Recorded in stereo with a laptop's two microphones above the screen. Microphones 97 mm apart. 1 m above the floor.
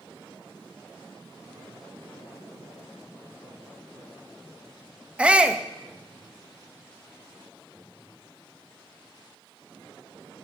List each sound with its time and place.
5.2 s a shout: 10° right (ahead or behind), 1.1 m